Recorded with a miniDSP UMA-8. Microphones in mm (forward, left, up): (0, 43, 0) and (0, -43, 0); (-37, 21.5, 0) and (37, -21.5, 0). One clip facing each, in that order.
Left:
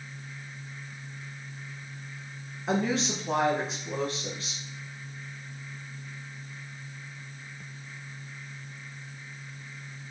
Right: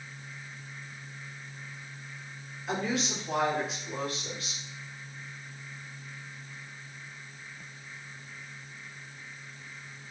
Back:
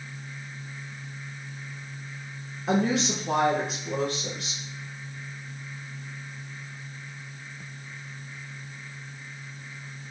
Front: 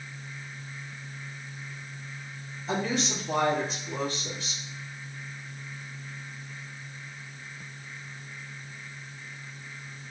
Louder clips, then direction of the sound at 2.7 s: Left 4 dB, back 5 dB; 145° left.